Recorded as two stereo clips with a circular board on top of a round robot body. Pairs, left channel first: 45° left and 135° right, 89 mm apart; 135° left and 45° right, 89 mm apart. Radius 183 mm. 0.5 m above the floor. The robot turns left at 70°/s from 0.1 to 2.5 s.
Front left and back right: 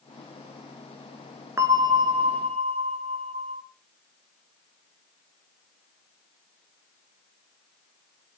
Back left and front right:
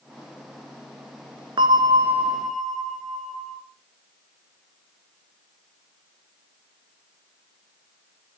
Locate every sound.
1.6 s a bell: 75° right, 1.5 m; by 3.6 s 140° right, 1.5 m